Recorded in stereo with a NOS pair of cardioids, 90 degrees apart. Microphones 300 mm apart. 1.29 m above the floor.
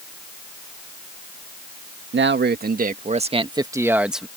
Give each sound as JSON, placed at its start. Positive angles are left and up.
{"t": 2.1, "sound": "a man speaking", "azimuth_deg": -40}